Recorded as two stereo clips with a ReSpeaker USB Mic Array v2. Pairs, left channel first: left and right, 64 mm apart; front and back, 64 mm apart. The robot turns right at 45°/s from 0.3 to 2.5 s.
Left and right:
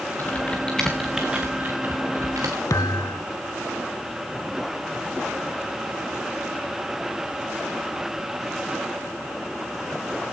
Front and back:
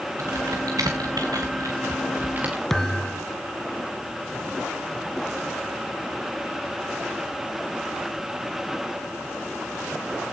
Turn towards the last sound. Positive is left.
turn(degrees=85)